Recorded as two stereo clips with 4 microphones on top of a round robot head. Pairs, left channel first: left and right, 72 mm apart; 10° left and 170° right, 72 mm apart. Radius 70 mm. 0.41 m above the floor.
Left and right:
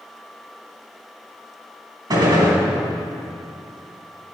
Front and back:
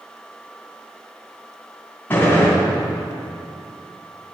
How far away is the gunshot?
About 3 m.